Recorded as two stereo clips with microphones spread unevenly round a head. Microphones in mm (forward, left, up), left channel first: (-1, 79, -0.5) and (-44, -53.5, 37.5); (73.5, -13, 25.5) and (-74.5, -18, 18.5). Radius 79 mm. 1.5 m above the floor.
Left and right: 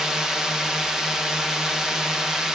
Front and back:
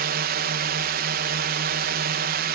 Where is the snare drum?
I don't hear a snare drum.